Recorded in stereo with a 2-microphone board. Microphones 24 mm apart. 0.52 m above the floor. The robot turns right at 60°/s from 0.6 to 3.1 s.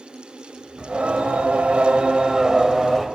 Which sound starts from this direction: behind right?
Singing, at 0.8 s.